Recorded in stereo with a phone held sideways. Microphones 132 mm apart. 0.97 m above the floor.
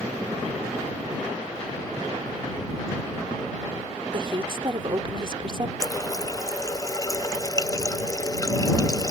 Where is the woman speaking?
40° right (ahead or behind).